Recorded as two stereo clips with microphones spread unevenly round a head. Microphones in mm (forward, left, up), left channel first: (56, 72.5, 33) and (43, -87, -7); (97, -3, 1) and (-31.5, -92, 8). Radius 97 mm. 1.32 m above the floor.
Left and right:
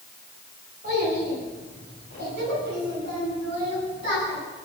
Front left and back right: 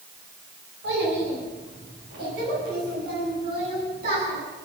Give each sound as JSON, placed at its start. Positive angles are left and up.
{"t": 0.8, "sound": "a child speaking", "azimuth_deg": -150, "distance_m": 8.5}